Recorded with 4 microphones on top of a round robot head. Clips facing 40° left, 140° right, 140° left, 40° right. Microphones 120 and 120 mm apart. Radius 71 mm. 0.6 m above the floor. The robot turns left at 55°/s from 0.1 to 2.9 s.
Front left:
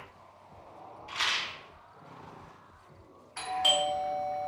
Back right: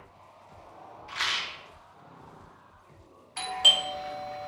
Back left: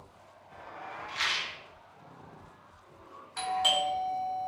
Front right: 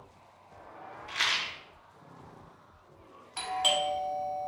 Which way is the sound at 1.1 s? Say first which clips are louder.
Even, front right 4 dB; 25° right.